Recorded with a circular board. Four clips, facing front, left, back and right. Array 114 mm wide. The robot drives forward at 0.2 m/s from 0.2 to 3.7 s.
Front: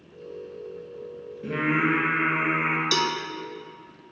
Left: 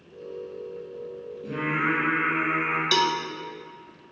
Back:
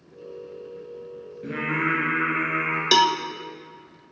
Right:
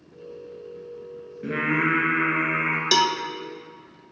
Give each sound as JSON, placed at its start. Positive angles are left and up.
{"t": 1.4, "sound": "singing", "azimuth_deg": -100, "distance_m": 3.5}
{"t": 2.9, "sound": "a cowbell", "azimuth_deg": -160, "distance_m": 0.6}